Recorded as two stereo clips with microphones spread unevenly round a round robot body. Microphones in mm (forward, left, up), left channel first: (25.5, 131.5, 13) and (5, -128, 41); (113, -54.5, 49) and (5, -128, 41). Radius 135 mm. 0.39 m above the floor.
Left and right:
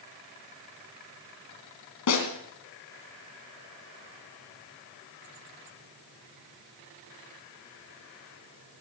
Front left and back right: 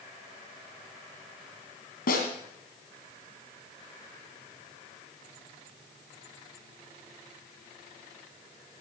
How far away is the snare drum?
About 2.5 m.